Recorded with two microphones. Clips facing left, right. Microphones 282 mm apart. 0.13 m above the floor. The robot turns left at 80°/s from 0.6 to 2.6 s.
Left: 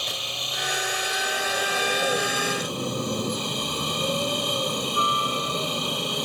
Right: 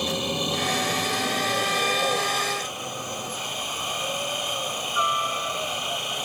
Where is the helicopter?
70° right; by 6.2 s 130° left.